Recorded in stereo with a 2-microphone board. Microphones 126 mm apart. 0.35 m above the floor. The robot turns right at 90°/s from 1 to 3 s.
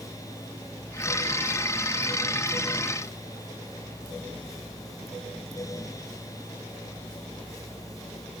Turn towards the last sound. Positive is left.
No sound to turn to.